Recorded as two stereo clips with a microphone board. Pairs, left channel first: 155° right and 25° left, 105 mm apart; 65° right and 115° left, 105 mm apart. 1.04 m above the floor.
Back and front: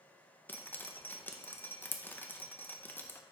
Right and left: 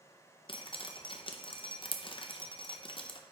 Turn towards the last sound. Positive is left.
turn(degrees=-90)